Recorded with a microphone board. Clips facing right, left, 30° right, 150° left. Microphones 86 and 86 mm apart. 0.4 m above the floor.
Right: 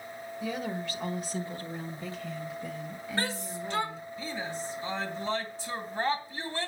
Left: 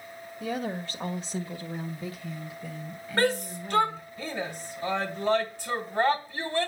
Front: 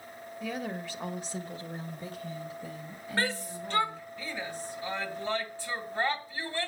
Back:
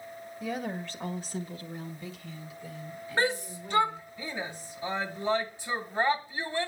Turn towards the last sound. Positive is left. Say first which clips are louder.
# left 8 dB, back 3 dB
turn(degrees=80)